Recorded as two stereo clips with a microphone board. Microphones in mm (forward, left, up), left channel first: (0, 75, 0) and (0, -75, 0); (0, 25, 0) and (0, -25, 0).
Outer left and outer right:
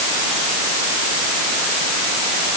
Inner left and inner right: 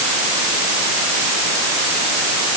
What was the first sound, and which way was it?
Only background noise.